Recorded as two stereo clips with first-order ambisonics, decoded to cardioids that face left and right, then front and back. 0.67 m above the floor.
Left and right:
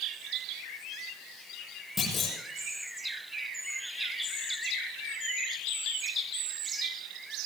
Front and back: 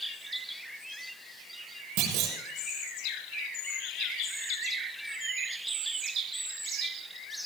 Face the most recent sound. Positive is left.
turn(degrees=160)